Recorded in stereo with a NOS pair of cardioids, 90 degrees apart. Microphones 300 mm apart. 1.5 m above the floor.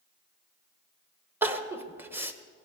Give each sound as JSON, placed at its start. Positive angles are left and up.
{"t": 1.4, "sound": "crying", "azimuth_deg": -5, "distance_m": 1.2}